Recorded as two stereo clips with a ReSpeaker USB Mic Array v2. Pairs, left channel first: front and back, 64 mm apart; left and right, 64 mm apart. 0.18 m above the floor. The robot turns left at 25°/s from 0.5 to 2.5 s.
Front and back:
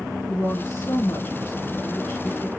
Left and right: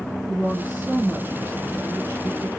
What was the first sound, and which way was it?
A woman speaking, 35° right.